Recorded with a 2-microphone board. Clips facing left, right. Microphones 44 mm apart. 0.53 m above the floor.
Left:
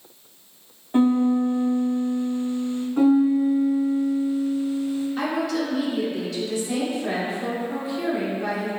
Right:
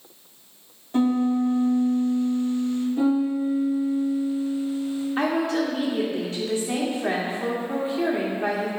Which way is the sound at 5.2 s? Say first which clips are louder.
Right 2 dB; 35° right (ahead or behind).